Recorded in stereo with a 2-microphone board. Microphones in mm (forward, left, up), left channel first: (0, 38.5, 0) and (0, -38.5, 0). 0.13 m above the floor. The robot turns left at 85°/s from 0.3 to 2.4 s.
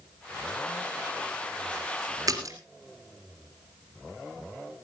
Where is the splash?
55° right (ahead or behind), 3 m; by 2.6 s 50° right (ahead or behind), 3 m.